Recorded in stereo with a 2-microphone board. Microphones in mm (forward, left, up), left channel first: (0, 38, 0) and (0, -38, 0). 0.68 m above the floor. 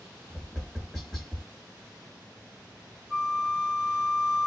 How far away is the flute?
About 0.5 m.